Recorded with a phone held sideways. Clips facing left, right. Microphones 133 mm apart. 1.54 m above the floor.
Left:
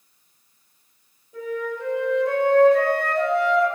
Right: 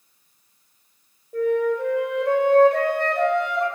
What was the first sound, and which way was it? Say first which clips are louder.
A flute: right 8 dB; 60° right (ahead or behind).